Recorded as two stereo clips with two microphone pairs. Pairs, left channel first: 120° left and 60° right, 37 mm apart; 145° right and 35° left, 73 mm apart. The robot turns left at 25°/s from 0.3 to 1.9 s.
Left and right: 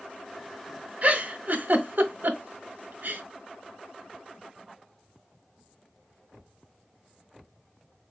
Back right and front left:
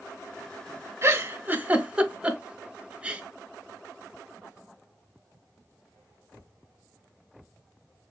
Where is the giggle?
15° right, 0.6 m; by 3.2 s 40° right, 0.6 m.